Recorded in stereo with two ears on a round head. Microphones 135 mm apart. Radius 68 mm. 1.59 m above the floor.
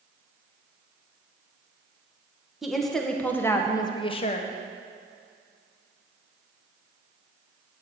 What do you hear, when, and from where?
2.6 s a woman speaking: centre (ahead or behind), 1.4 m; by 4.5 s 50° left (ahead or behind), 1.0 m